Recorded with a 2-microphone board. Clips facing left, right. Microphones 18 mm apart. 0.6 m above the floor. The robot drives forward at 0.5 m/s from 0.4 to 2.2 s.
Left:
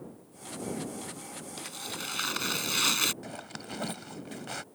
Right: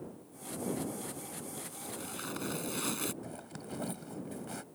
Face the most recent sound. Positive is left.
turn(degrees=60)  # may be behind; listen again after turning